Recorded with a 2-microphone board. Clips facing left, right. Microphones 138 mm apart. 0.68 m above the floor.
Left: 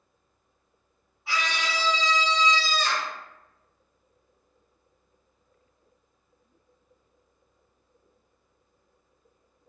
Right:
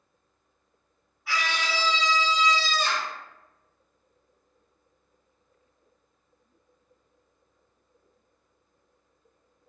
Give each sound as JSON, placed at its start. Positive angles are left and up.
{"t": 1.3, "sound": "a scream", "side_deg": 25, "distance_m": 1.1}